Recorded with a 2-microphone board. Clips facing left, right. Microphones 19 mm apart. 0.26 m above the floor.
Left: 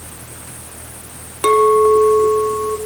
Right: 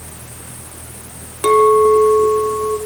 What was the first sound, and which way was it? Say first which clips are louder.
A clink: right 1 dB; 15° left (ahead or behind).